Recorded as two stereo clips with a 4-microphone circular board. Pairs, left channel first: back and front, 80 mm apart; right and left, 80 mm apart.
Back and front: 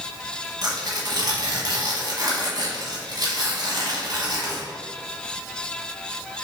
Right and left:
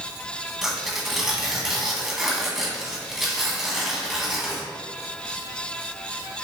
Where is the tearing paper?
5° left, 1.2 m.